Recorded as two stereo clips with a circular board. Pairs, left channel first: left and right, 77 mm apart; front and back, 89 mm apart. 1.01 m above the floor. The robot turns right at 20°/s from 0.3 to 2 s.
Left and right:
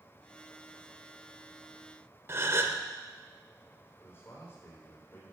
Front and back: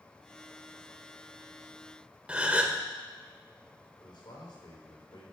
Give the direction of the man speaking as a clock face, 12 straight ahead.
11 o'clock.